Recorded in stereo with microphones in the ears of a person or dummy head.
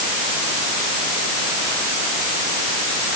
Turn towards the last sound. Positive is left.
No sound to turn to.